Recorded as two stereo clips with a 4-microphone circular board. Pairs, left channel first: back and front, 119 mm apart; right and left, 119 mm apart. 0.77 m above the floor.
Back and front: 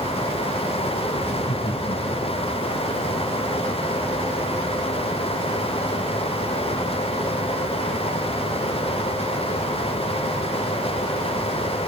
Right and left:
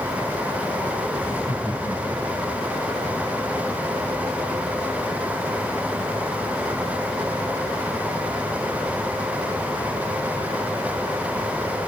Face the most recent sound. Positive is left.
turn(degrees=155)